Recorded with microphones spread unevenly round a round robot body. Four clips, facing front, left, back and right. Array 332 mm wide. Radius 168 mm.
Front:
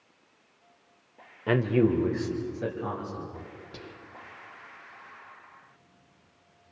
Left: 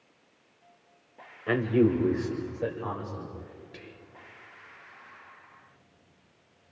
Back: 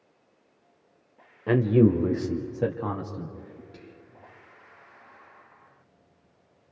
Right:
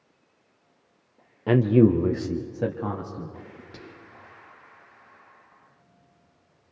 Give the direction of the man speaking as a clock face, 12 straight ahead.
3 o'clock.